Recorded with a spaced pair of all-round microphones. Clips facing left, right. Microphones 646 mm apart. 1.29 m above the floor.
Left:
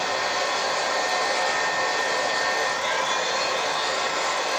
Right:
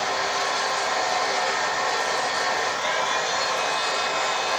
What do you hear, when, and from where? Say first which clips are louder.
0.0 s a machine running: left 1 dB; 15° right (ahead or behind), 1.3 m